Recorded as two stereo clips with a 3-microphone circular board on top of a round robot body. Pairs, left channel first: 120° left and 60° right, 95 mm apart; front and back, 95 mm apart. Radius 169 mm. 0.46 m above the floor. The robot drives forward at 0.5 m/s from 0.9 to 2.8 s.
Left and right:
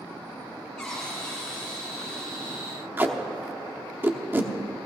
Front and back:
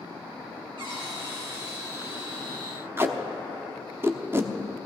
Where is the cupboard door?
160° right, 5 m.